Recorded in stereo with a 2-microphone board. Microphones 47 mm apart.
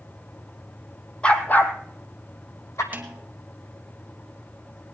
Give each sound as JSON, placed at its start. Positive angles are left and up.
{"t": 1.2, "sound": "a dog barking", "side_deg": 20, "distance_m": 1.0}
{"t": 2.9, "sound": "a snare drum", "side_deg": -35, "distance_m": 1.4}